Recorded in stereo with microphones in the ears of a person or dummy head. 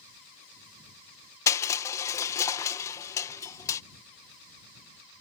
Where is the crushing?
20° left (ahead or behind).